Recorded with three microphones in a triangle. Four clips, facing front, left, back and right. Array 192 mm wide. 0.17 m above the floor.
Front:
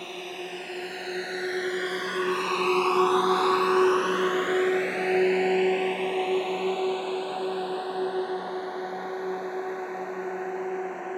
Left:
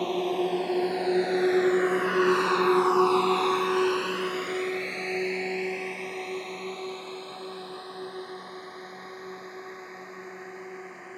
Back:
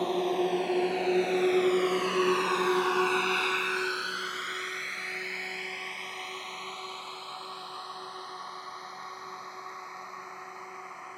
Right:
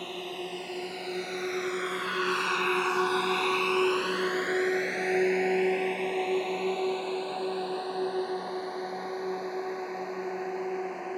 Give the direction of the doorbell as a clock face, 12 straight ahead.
I don't hear a doorbell.